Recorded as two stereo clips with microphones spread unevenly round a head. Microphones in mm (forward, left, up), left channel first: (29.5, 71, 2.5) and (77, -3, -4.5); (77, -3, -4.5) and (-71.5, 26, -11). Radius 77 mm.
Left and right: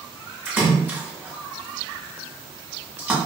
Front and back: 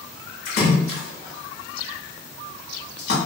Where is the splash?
15° left, 1.4 m.